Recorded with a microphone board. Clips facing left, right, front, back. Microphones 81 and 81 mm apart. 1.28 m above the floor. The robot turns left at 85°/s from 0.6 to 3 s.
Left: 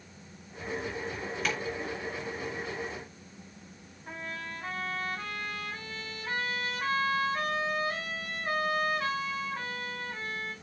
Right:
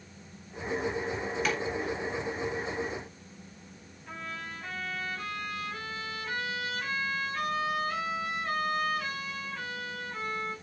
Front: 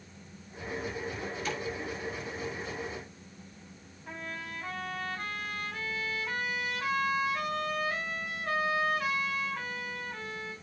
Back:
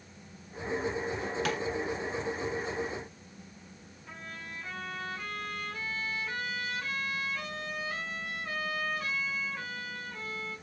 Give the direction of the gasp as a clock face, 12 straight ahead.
No gasp in this recording.